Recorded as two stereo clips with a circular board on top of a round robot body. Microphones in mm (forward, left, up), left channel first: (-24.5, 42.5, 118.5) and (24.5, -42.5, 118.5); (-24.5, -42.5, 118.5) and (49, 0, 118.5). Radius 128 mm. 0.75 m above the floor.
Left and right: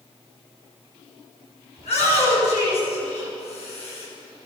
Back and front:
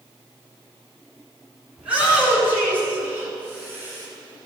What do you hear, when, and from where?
1.8 s a shout: 110° left, 9 m; by 4.1 s 95° left, 9 m